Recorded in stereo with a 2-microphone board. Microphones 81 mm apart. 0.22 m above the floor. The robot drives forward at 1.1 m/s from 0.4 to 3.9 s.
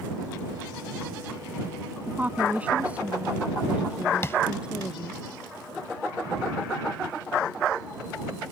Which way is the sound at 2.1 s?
20° right (ahead or behind).